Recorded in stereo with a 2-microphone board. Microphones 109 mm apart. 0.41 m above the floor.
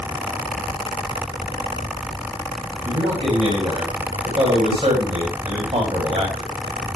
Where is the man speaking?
65° right (ahead or behind), 2.5 m.